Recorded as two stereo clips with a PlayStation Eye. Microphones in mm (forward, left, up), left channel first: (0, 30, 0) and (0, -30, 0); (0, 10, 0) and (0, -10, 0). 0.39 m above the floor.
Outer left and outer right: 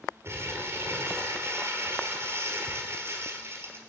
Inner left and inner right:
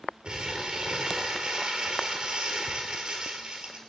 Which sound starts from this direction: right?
Crumpling, at 0.2 s.